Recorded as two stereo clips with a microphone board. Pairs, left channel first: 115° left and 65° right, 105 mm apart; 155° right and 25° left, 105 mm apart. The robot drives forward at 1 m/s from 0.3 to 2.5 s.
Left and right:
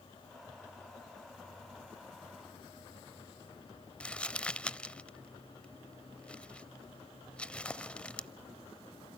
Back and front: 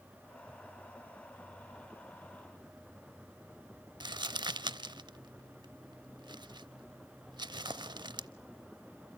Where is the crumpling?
35° left, 0.7 m.